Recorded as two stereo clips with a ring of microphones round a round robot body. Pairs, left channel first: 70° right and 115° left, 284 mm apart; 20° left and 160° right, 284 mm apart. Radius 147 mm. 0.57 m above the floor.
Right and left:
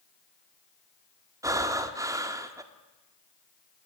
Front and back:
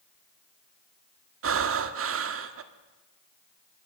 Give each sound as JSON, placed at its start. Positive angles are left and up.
{"t": 1.4, "sound": "breathing", "azimuth_deg": -170, "distance_m": 1.5}